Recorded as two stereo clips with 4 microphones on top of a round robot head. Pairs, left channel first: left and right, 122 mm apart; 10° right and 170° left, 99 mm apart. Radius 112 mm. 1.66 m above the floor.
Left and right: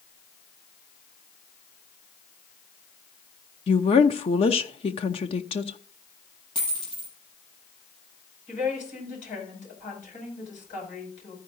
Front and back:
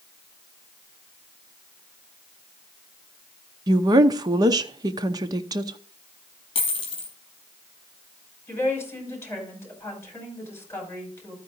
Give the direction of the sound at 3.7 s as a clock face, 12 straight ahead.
8 o'clock.